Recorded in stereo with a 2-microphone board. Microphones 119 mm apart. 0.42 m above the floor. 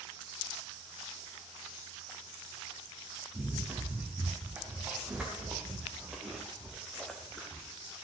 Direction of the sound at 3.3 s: 15° right (ahead or behind).